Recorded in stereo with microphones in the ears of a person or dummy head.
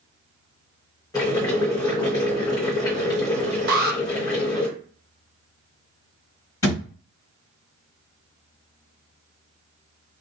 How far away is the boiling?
About 1.7 m.